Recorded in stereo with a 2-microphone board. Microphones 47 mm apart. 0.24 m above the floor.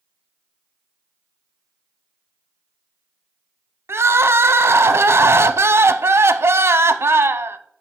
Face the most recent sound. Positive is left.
turn(degrees=-60)  # may be behind; listen again after turning